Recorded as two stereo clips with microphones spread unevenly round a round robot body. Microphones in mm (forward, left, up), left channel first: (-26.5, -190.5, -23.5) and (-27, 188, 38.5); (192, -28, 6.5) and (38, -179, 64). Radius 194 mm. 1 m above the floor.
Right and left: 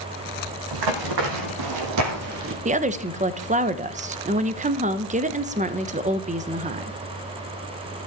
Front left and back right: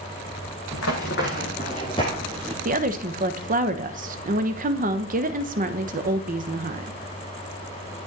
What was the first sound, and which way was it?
Running footsteps, 105° left.